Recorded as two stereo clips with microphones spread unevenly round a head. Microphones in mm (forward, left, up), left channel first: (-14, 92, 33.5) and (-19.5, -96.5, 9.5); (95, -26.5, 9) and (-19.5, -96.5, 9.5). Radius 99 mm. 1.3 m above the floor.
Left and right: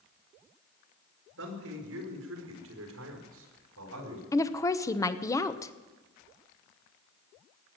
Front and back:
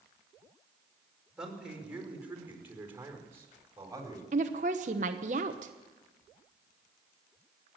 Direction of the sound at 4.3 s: 165° left.